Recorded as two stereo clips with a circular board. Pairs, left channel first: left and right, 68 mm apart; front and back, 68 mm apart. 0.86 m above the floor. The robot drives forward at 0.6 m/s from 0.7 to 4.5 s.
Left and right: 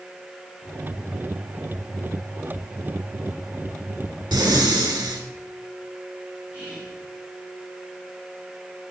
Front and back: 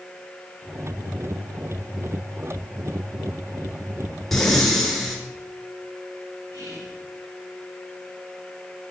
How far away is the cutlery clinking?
I don't hear cutlery clinking.